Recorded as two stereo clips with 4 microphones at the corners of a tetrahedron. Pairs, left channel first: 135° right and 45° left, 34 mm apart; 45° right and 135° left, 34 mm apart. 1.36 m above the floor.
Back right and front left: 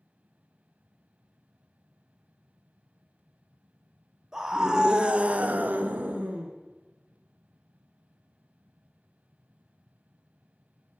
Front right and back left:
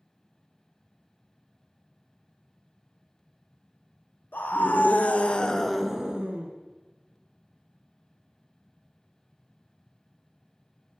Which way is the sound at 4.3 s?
30° right.